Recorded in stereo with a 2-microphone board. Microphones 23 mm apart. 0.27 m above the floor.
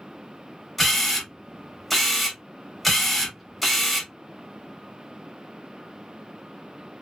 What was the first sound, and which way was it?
A camera shutter, centre (ahead or behind).